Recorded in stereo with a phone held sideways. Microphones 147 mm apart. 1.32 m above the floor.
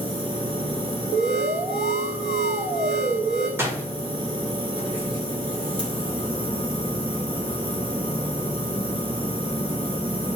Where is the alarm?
55° right (ahead or behind), 0.7 m.